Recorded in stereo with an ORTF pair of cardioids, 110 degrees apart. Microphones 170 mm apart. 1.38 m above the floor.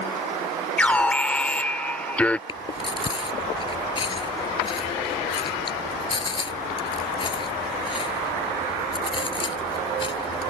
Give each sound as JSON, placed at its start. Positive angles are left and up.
{"t": 0.8, "sound": "an alarm", "azimuth_deg": 5}
{"t": 2.5, "sound": "chewing", "azimuth_deg": 30}